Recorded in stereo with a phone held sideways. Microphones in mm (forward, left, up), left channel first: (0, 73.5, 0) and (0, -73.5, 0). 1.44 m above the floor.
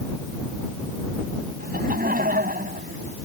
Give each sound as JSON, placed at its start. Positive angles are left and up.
{"t": 1.6, "sound": "laughter", "side_deg": -85}